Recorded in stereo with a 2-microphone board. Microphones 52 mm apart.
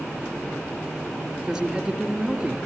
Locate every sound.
1.4 s a man speaking: 5° right (ahead or behind), 2.5 m